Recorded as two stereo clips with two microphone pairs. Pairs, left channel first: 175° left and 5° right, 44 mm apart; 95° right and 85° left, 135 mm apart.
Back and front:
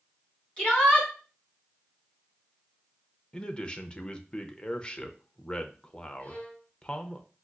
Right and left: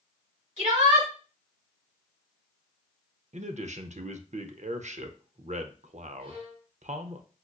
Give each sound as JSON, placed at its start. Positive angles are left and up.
{"t": 0.6, "sound": "a shout", "azimuth_deg": 115, "distance_m": 2.5}
{"t": 3.3, "sound": "a man speaking", "azimuth_deg": 110, "distance_m": 0.5}
{"t": 6.2, "sound": "a violin", "azimuth_deg": 120, "distance_m": 2.0}